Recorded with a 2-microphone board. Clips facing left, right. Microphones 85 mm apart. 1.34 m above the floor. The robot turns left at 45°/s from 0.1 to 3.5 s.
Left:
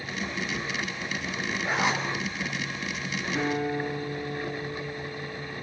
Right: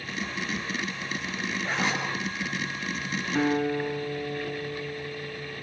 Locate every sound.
1.6 s a zipper: 5° left (ahead or behind), 6 m; by 2.0 s 25° left (ahead or behind), 6 m
3.4 s a guitar: 30° right (ahead or behind), 4.5 m; by 5.5 s 25° right (ahead or behind), 4.5 m